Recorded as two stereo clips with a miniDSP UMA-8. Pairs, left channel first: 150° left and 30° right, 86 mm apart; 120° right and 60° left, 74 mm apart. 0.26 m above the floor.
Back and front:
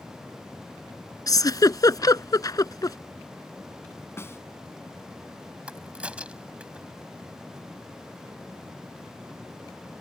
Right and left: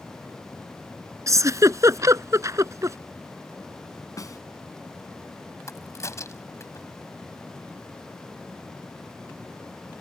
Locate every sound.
1.3 s a giggle: 105° left
4.2 s a snare drum: 150° right
5.7 s a crack: 100° right